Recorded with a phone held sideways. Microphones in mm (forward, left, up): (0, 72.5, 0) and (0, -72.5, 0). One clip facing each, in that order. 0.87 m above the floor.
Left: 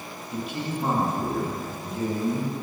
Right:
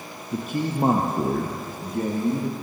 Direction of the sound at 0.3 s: 40° right (ahead or behind).